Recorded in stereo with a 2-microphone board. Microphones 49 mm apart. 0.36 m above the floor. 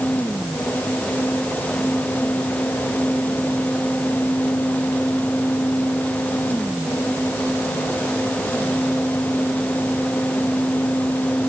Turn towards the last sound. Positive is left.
No sound to turn to.